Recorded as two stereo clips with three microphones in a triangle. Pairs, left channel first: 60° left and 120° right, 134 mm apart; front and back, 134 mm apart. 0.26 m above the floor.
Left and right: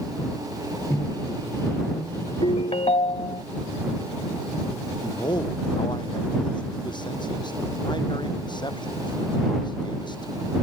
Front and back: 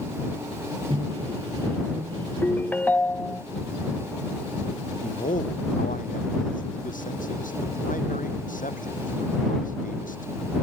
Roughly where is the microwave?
Behind left.